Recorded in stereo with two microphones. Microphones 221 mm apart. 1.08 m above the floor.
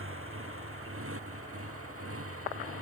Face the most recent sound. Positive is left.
turn(degrees=-90)